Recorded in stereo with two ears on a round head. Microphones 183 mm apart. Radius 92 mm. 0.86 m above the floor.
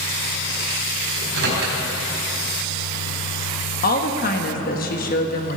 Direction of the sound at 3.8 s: 45° left (ahead or behind).